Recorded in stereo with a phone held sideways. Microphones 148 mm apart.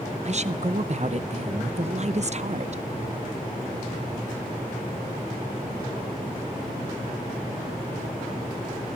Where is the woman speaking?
50° right (ahead or behind), 0.7 m.